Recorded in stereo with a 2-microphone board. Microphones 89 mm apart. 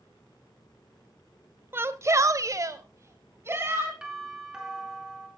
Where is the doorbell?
5° right (ahead or behind), 5 m.